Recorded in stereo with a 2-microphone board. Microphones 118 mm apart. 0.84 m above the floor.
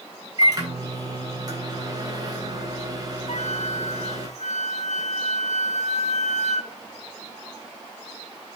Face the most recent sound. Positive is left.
turn(degrees=75)  # may be behind; listen again after turning